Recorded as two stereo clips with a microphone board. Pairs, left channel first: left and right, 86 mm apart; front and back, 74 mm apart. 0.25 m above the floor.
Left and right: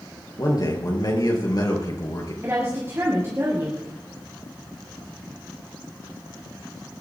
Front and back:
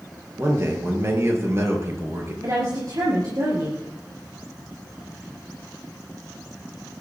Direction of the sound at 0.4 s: 130° left.